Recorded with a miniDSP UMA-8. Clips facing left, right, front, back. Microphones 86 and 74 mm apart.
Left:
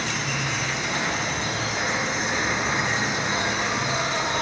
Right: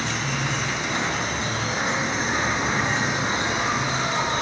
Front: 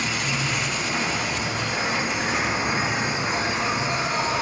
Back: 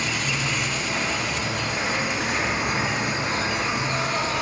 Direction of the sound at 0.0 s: 65° right.